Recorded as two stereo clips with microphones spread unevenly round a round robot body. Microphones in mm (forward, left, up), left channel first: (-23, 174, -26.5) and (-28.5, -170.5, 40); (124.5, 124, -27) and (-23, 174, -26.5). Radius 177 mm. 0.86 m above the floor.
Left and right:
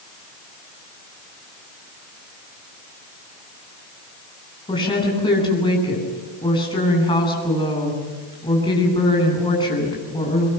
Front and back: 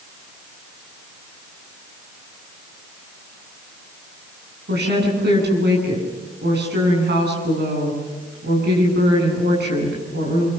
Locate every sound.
4.7 s a woman speaking: 165° left, 9.5 m